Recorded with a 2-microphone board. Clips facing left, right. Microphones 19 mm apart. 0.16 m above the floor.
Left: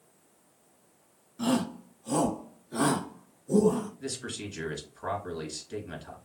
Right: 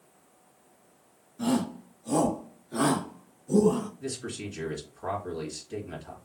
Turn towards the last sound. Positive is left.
turn(degrees=15)  # may be behind; listen again after turning